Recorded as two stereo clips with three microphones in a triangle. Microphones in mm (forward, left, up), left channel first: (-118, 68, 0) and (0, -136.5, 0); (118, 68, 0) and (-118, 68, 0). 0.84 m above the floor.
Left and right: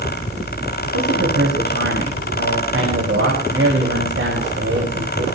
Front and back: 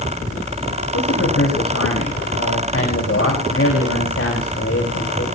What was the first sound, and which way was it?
A man speaking, 30° right.